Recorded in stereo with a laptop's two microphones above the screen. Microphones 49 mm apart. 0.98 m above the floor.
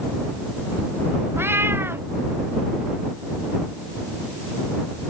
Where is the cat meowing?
50° right (ahead or behind).